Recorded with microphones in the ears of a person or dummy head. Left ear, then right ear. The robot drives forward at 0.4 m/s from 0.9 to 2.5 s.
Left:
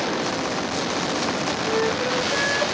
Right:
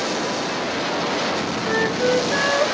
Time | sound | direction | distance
1.6 | a flute | 75° right (ahead or behind) | 2 m